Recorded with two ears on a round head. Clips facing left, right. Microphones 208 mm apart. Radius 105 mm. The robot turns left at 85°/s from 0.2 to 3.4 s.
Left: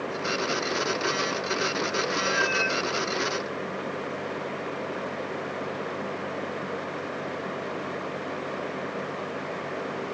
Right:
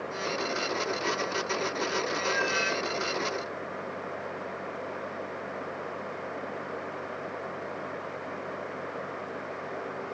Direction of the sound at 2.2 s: 20° left (ahead or behind).